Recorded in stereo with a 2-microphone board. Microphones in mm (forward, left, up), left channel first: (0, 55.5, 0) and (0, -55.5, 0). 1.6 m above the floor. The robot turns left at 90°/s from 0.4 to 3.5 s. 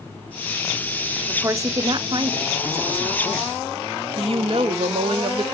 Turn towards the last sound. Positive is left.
turn(degrees=-55)  # may be behind; listen again after turning